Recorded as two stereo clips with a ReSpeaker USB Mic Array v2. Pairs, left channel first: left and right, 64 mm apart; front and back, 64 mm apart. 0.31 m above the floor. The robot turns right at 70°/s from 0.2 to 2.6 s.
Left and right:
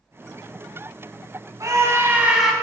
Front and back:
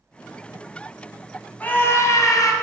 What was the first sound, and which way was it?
A scream, 65° right.